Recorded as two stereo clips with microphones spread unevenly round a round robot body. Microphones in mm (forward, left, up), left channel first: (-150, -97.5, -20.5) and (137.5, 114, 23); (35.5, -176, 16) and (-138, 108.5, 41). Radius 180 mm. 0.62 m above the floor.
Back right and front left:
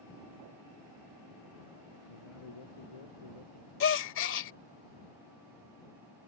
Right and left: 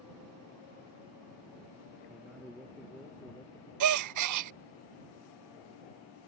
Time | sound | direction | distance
2.1 | a man speaking | 150° right | ?
3.8 | a gasp | 155° left | ?